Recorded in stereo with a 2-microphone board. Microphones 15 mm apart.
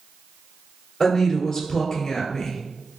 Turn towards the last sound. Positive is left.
turn(degrees=15)  # may be behind; listen again after turning